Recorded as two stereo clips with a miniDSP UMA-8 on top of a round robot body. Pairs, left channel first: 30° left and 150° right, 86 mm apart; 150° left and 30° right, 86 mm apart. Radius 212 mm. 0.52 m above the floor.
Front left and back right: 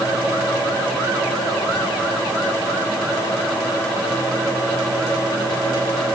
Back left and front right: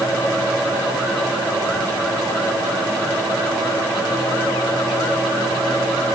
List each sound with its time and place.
Only background noise.